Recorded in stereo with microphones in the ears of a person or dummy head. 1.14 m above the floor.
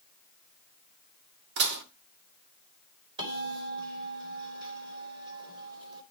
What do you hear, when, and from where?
1.6 s dishes clattering: 55° right (ahead or behind), 1.7 m
3.2 s a bell: 25° right (ahead or behind), 3.5 m